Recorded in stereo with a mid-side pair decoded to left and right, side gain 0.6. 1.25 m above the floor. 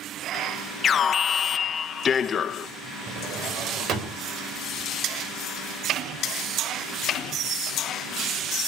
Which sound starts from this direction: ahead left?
An alarm, at 0.8 s.